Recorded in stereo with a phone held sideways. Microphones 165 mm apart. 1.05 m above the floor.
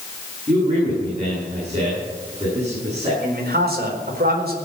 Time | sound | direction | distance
0.5 | a man speaking | 45° right (ahead or behind) | 9.5 m
3.2 | a man speaking | 75° right (ahead or behind) | 4.5 m